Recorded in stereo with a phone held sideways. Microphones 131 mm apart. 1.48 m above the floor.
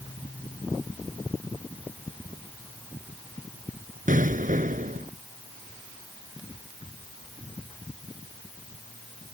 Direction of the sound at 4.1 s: 75° right (ahead or behind).